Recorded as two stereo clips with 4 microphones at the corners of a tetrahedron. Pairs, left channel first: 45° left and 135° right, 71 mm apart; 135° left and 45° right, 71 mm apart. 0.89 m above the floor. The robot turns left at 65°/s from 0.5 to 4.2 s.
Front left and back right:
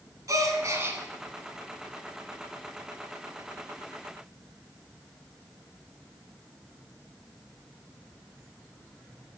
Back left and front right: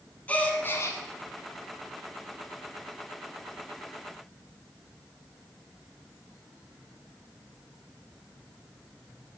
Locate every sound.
0.3 s a gasp: 160° right, 1.4 m; by 1.0 s 170° left, 1.4 m